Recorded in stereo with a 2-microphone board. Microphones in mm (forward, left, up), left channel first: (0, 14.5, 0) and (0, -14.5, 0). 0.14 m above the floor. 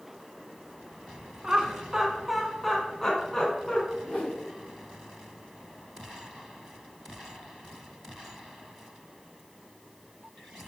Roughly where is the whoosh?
Left.